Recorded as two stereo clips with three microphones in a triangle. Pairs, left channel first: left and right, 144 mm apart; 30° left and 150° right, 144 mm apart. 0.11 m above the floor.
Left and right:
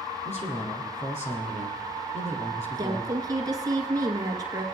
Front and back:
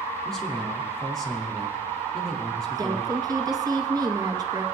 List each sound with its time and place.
0.2 s a man speaking: 115° left, 3.5 m
2.8 s a woman speaking: 120° right, 1.8 m